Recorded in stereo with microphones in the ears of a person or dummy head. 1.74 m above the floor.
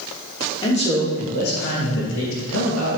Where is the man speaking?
30° left (ahead or behind), 3.5 m; by 3.0 s 90° left, 3.5 m.